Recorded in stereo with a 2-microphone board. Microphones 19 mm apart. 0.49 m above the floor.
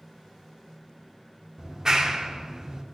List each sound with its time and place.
1.6 s a clap: 30° right (ahead or behind), 1.0 m